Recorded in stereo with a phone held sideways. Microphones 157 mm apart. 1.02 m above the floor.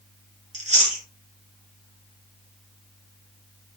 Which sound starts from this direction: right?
Chewing, at 0.5 s.